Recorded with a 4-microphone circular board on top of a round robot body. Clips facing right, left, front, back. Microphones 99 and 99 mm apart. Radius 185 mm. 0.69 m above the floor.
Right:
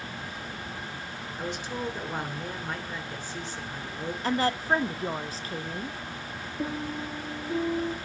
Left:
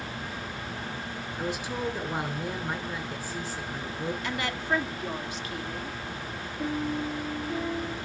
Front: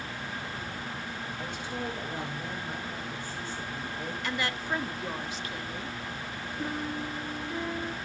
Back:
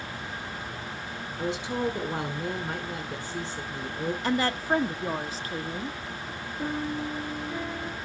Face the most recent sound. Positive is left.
turn(degrees=-90)